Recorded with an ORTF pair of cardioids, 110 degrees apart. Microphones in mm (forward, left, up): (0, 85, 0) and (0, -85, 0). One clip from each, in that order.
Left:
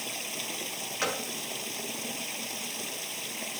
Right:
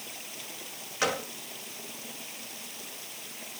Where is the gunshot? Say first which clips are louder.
Right 3 dB; 15° right.